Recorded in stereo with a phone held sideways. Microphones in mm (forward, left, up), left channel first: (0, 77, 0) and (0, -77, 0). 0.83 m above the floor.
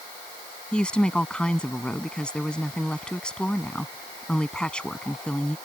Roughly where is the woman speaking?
Centre.